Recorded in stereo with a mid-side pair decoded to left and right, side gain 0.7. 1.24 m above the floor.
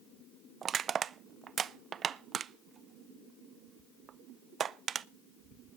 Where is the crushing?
35° right, 0.5 m.